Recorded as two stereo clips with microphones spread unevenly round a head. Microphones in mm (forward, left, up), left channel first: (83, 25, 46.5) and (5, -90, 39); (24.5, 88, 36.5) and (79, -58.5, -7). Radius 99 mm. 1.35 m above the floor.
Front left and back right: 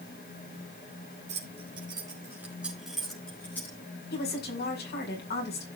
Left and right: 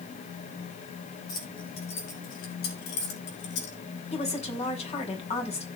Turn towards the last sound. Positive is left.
turn(degrees=60)